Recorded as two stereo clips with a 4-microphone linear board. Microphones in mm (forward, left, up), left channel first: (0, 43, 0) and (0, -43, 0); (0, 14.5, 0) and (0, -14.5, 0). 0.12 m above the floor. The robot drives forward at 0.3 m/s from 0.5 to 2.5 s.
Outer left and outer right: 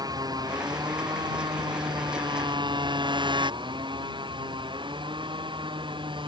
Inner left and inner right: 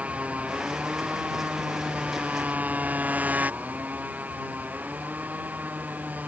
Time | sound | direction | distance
0.0 | a motorcycle | 50° right (ahead or behind) | ?